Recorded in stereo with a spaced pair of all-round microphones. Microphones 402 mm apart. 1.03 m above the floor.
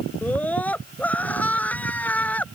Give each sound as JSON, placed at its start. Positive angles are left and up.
{"t": 0.2, "sound": "a scream", "side_deg": 5}